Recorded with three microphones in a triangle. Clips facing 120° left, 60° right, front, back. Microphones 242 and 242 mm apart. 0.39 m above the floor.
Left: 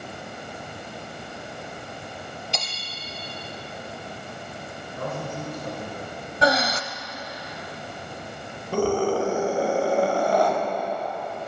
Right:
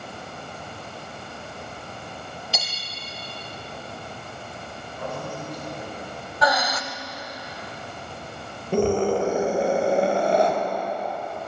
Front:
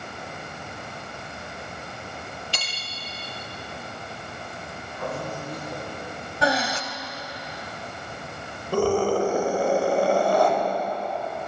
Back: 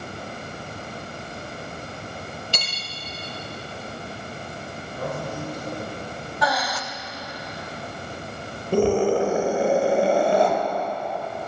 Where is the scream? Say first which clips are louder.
Right 2 dB, back 2 dB; 120° right, 1.4 m.